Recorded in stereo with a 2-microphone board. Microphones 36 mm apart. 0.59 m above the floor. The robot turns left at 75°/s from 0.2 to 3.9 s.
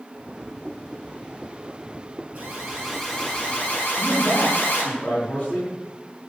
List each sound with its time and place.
2.4 s an alarm: 130° right, 7 m; by 4.8 s 115° left, 7 m
3.8 s a man speaking: 35° left (ahead or behind), 8.5 m; by 5.7 s 40° left (ahead or behind), 8.5 m